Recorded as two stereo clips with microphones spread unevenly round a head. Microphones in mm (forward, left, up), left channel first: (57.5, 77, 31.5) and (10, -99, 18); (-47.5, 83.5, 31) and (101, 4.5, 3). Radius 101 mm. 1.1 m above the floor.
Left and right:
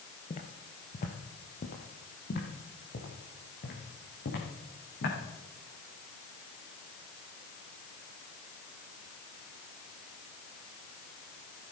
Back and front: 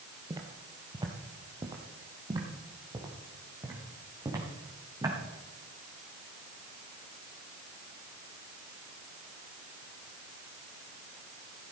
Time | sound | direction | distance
0.3 | footsteps | 40° left | 1.4 m